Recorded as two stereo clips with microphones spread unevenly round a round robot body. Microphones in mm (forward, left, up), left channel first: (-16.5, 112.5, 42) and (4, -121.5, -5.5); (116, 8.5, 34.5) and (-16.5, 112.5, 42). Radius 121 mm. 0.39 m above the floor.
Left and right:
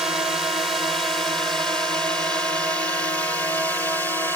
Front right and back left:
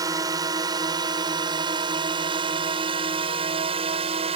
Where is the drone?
155° right; by 4.4 s 175° right.